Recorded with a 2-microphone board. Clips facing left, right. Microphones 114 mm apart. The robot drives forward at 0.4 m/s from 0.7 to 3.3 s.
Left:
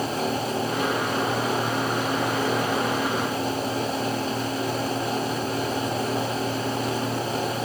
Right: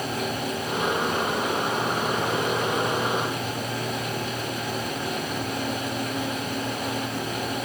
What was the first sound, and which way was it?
Only background noise.